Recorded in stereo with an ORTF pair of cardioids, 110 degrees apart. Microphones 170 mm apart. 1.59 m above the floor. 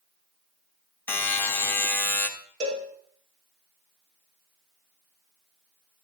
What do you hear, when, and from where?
1.1 s a buzzer: 15° left, 1.0 m
2.6 s a cowbell: 55° right, 3 m